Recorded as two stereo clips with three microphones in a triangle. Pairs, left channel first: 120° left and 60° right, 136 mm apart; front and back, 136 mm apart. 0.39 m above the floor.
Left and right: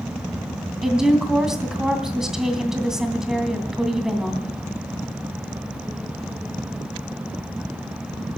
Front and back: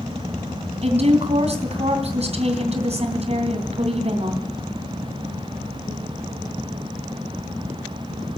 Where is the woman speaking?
145° right, 2.5 m.